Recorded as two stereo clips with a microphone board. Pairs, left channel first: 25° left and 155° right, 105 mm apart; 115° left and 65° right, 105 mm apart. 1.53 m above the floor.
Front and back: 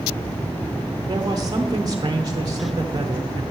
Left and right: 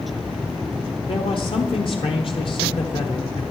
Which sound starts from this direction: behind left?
A man speaking, at 1.1 s.